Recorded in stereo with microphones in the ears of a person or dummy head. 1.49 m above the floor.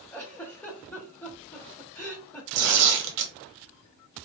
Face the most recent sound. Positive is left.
turn(degrees=-60)  # may be behind; listen again after turning